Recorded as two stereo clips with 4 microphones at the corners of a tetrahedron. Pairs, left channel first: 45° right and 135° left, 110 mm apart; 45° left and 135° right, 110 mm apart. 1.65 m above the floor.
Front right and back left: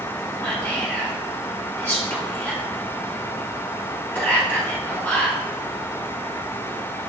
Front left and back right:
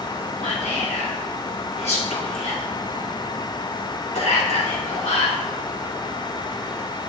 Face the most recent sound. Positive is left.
turn(degrees=25)